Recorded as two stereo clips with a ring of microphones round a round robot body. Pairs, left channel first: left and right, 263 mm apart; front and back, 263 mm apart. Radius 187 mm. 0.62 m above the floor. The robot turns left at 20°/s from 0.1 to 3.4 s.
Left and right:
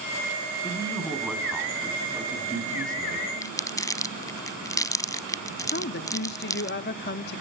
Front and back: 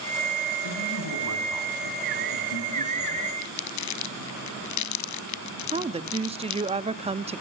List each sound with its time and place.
0.6 s a man speaking: 15° left, 4.5 m; by 3.3 s 40° right, 4.5 m
3.4 s crumpling: 10° left, 1.1 m
5.7 s a woman speaking: 120° left, 0.7 m